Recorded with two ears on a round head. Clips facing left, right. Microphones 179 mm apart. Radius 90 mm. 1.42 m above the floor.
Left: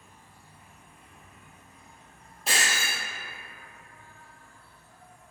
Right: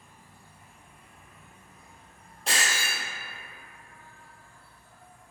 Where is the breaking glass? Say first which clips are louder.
Even; 5° left (ahead or behind), 1.1 m.